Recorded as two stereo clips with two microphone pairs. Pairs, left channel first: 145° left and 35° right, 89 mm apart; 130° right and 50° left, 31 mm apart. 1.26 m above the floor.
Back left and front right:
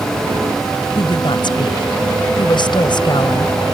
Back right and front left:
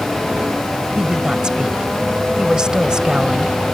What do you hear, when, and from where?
1.0 s a woman speaking: 115° left